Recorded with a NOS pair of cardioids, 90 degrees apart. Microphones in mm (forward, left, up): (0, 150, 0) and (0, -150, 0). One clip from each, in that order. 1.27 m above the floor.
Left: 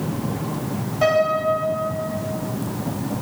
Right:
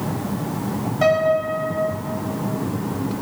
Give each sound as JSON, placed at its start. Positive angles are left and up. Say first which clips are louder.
{"t": 1.0, "sound": "a piano", "louder": "even", "azimuth_deg": -20, "distance_m": 2.5}